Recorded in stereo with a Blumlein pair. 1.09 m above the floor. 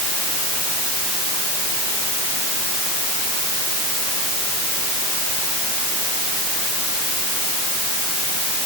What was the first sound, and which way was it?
Only background noise.